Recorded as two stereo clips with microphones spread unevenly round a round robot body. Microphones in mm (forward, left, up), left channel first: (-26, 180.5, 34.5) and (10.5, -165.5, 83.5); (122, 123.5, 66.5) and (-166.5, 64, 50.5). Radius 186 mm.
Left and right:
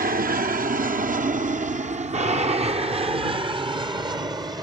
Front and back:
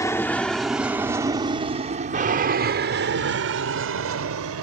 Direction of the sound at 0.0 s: 55° right.